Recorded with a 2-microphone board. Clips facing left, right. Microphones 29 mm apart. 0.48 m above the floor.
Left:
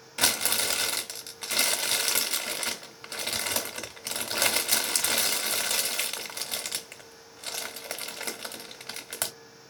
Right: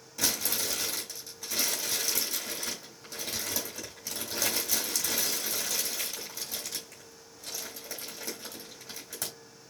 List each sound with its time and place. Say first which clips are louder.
0.2 s crumpling: left 5 dB; 60° left (ahead or behind), 1.3 m